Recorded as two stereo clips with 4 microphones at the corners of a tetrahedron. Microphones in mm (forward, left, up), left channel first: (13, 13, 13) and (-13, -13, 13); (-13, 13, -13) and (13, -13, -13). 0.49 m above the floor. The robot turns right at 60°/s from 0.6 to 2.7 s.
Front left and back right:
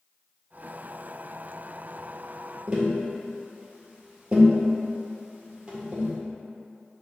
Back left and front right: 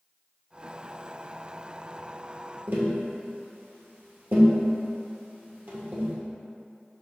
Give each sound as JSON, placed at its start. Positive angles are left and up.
{"t": 2.7, "sound": "tapping", "azimuth_deg": -70, "distance_m": 1.7}